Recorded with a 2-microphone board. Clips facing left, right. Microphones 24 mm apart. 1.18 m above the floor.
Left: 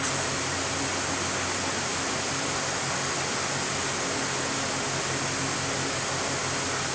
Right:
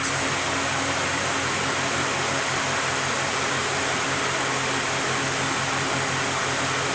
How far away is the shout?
I don't hear a shout.